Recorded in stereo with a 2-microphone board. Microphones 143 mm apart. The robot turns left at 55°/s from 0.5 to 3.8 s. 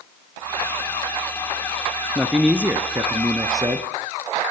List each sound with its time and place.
2.1 s a man speaking: 5° right (ahead or behind), 1.2 m; by 3.9 s 25° right (ahead or behind), 1.2 m